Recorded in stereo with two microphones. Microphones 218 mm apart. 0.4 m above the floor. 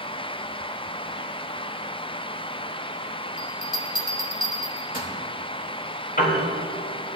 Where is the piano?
40° left (ahead or behind), 3.5 m.